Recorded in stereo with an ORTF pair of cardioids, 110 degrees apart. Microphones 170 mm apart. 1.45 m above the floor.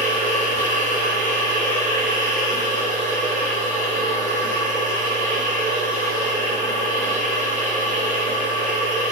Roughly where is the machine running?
Ahead right.